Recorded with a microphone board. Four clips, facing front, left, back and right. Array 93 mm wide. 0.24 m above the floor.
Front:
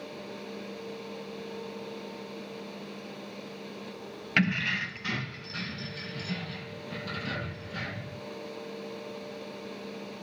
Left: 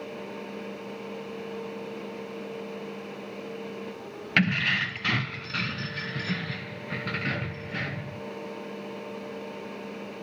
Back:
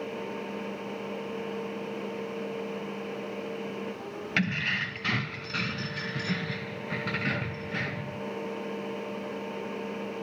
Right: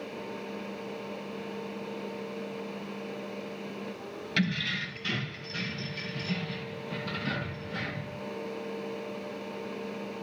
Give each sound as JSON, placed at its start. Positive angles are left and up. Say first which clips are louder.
{"t": 4.4, "sound": "keys jangling", "louder": "left 5 dB, front 3 dB", "azimuth_deg": 75, "distance_m": 0.8}